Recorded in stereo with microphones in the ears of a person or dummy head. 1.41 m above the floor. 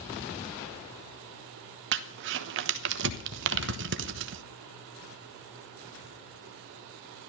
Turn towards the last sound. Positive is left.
turn(degrees=-65)  # may be behind; listen again after turning